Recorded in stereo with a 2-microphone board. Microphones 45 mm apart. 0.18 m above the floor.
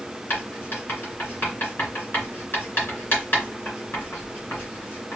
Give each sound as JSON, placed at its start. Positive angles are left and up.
{"t": 0.3, "sound": "writing", "side_deg": 55, "distance_m": 2.5}